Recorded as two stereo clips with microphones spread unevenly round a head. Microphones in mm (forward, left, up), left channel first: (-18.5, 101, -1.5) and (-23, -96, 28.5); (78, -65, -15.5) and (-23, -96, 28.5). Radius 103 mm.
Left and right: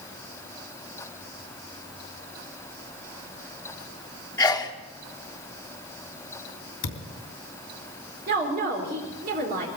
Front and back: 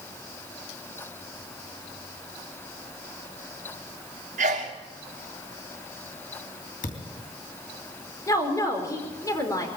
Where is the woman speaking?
45° right, 4.5 m.